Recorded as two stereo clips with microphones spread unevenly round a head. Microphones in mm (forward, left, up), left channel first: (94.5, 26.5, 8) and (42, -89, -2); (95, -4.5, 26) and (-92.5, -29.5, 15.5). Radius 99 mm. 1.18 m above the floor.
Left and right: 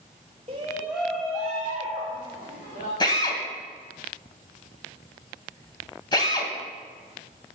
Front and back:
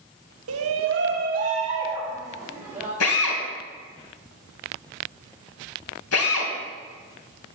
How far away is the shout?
About 1.1 m.